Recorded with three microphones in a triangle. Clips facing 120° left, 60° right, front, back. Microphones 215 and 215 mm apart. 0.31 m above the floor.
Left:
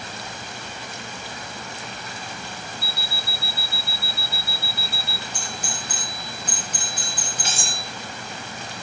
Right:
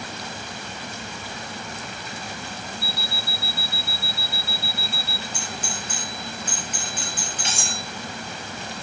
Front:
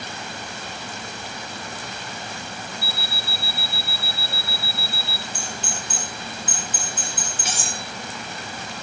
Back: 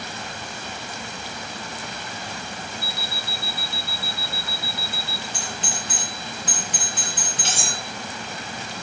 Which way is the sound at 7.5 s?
175° left.